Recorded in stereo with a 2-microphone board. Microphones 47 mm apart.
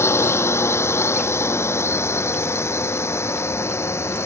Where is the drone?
75° left (ahead or behind); by 4.3 s 80° left.